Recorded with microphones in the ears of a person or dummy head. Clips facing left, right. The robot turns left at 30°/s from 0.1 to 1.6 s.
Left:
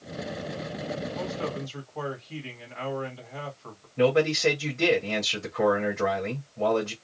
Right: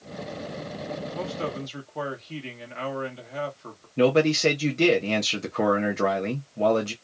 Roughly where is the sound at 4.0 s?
Right.